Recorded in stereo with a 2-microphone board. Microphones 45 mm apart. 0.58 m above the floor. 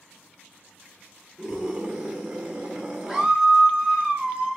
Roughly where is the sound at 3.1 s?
Centre.